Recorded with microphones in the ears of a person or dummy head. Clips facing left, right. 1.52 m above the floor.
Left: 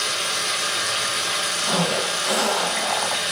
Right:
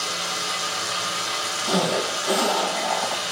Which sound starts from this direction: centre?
A zipper, at 1.7 s.